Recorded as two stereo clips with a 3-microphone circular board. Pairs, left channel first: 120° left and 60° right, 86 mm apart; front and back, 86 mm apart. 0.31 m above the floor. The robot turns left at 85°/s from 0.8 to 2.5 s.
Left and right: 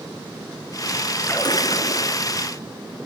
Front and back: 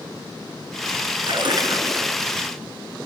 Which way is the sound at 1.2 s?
175° left.